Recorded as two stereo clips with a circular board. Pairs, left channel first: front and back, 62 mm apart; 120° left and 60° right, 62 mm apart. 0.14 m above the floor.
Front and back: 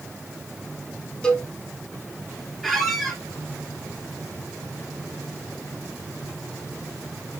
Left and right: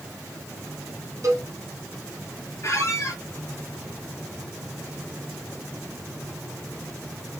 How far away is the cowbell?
About 2.5 m.